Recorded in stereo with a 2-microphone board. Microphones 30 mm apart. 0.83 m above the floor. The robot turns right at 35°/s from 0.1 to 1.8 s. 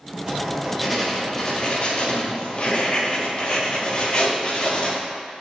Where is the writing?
20° right, 0.6 m; by 5.0 s 35° left, 0.6 m.